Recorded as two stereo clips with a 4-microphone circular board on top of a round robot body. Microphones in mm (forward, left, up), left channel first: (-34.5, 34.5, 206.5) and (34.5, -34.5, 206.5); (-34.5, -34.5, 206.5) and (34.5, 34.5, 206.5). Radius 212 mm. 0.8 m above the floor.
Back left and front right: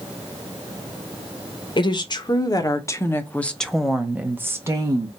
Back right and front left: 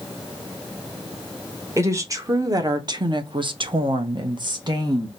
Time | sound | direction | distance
1.8 | a woman speaking | 105° left | 1.5 m